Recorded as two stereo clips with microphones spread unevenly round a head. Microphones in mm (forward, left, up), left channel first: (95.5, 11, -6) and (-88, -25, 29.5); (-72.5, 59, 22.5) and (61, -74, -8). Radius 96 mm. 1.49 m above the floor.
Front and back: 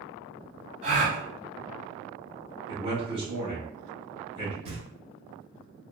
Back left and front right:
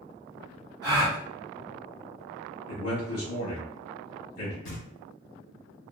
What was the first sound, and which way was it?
A gasp, 115° right.